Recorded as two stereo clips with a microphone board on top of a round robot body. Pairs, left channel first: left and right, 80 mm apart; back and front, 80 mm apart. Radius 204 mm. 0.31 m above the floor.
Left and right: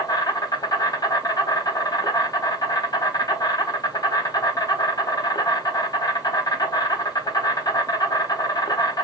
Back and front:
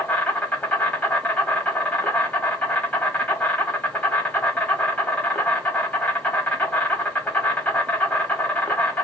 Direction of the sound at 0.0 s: 110° left.